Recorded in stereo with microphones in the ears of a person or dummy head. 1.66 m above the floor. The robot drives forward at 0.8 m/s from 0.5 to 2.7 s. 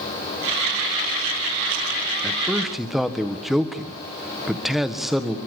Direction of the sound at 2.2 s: Centre (ahead or behind).